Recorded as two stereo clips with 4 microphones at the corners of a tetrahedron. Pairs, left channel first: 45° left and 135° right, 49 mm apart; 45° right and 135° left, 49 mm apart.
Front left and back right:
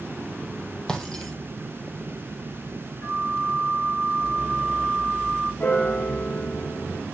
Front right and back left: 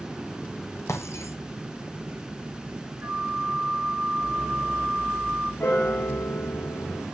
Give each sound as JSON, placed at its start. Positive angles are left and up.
{"t": 0.9, "sound": "breaking glass", "azimuth_deg": -30, "distance_m": 3.0}
{"t": 3.0, "sound": "a flute", "azimuth_deg": 85, "distance_m": 5.5}
{"t": 5.6, "sound": "a piano", "azimuth_deg": -5, "distance_m": 3.0}